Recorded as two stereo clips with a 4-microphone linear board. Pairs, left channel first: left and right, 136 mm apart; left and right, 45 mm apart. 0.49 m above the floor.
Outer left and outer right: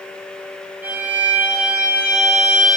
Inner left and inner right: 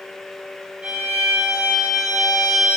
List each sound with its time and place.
0.8 s a violin: 10° right (ahead or behind), 2.5 m